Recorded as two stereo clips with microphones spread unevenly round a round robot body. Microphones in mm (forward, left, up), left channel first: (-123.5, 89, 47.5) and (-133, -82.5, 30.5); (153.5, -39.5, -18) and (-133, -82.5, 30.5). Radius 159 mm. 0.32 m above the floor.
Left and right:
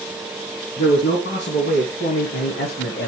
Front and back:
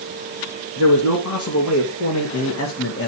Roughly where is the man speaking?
Ahead left.